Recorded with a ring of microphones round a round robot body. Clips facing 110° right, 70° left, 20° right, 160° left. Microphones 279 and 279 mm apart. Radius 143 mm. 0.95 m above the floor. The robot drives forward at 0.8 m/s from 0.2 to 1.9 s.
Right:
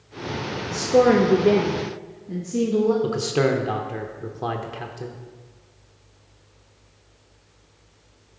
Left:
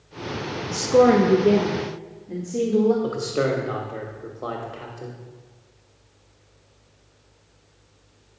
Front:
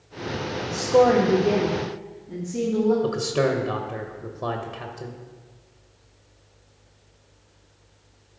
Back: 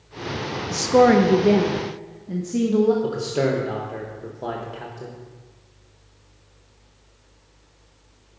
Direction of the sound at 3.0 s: 95° right.